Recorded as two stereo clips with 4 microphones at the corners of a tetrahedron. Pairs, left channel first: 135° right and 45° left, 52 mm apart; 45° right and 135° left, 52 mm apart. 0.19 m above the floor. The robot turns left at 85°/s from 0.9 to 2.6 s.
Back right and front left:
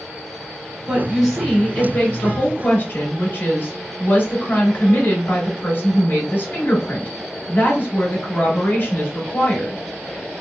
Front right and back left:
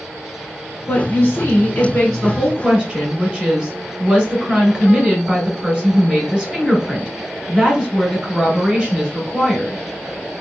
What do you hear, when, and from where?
0.9 s a woman speaking: 10° right, 1.2 m; by 9.8 s 155° right, 1.2 m